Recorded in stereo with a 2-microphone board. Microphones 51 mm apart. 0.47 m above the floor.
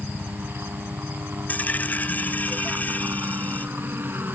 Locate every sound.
0.0 s a helicopter: 50° right (ahead or behind); by 4.4 s 45° right (ahead or behind)
1.5 s a dropped coin: 35° left (ahead or behind)